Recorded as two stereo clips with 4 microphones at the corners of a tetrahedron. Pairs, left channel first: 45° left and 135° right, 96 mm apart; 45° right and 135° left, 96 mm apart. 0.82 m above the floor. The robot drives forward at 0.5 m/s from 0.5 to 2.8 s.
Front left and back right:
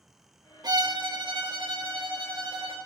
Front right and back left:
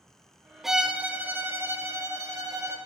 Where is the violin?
135° right, 0.5 m; by 2.8 s 170° right, 1.4 m.